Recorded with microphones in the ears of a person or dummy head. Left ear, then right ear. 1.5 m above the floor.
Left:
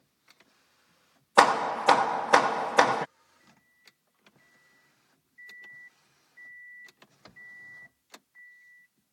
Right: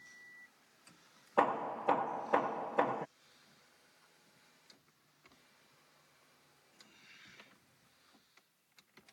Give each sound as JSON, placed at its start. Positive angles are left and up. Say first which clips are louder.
{"t": 1.4, "sound": "hammering", "louder": "left 11 dB", "side_deg": 65}